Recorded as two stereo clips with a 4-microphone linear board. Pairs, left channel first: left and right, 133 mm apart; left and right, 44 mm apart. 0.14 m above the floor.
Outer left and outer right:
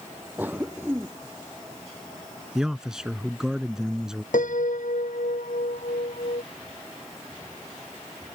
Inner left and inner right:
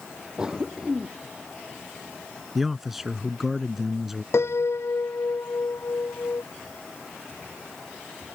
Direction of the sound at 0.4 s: 15° right (ahead or behind).